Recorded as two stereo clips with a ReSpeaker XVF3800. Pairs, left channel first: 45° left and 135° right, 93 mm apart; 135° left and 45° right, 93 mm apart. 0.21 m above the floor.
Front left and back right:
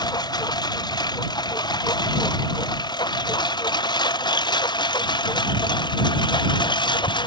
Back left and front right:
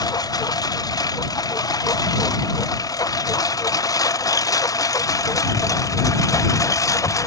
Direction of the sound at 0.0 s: 90° left.